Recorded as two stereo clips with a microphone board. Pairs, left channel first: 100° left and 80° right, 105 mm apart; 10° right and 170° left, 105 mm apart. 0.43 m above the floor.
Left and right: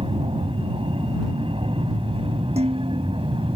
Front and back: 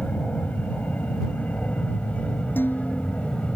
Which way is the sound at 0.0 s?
85° right.